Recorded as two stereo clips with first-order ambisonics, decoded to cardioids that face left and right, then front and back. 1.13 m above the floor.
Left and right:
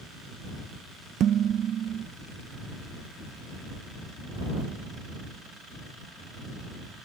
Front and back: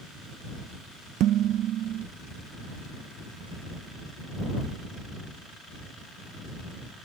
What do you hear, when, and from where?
1.2 s dishes clattering: 140° right